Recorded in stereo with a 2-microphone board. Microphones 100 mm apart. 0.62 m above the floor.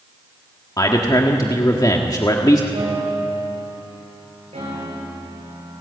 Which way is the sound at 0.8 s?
35° left (ahead or behind).